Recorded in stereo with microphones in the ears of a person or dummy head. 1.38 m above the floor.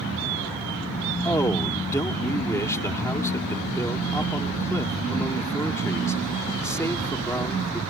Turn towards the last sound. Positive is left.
turn(degrees=10)  # may be behind; listen again after turning